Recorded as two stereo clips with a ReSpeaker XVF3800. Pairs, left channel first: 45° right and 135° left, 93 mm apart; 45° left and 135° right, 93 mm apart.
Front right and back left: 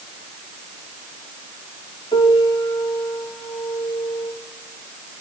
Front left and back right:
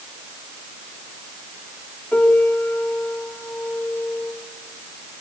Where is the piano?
35° right, 3 m.